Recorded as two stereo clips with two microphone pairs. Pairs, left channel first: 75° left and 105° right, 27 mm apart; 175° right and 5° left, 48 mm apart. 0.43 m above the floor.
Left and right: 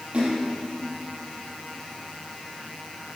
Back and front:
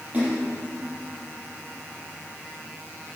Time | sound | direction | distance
0.1 | a splash | 55° right | 5 m